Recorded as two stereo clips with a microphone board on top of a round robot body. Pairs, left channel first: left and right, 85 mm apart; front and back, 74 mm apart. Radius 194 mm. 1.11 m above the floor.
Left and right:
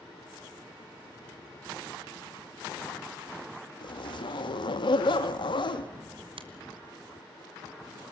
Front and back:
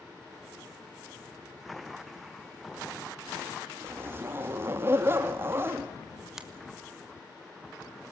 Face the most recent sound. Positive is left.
turn(degrees=-95)